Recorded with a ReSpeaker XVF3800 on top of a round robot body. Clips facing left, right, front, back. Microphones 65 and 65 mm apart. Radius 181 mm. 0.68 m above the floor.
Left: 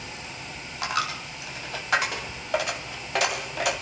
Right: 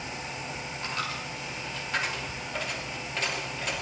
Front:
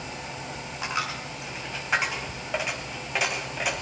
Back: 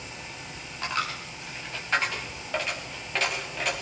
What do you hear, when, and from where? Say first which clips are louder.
0.8 s a dropped coin: left 7 dB, even; 80° left, 1.2 m